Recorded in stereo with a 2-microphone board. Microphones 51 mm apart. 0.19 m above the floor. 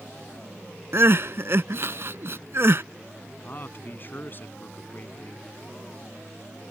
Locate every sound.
0.9 s crying: 55° right (ahead or behind)
3.4 s a man speaking: 45° left (ahead or behind)